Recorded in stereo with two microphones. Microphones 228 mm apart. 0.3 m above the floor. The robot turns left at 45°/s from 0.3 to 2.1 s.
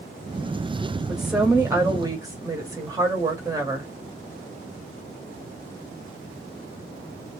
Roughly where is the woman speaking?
Centre.